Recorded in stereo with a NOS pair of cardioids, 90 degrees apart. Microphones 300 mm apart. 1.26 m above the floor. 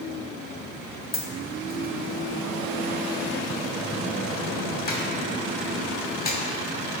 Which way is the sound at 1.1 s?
30° left.